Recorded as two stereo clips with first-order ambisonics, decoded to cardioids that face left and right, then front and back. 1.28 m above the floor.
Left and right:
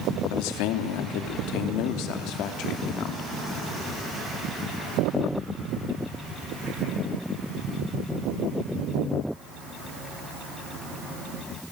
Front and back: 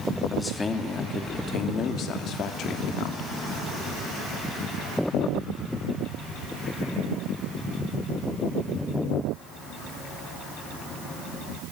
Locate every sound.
0.3 s a man speaking: 80° left, 2.5 m; by 3.3 s 45° left, 3 m